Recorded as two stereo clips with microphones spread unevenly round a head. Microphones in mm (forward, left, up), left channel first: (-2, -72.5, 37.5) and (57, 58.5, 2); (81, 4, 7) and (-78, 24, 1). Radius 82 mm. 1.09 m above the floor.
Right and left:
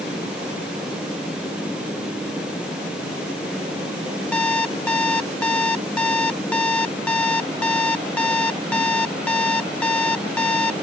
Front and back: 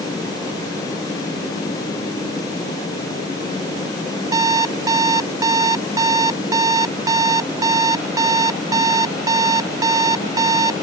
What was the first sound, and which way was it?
An alarm clock, 145° right.